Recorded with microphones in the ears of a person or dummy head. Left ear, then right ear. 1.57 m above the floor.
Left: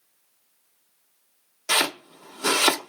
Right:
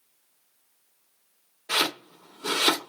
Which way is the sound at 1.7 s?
60° left (ahead or behind).